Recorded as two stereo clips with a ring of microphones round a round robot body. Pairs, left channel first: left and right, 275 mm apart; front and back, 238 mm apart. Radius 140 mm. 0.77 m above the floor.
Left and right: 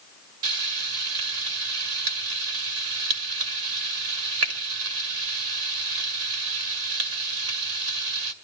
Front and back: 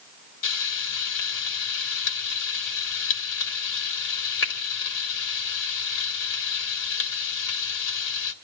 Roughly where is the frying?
Ahead right.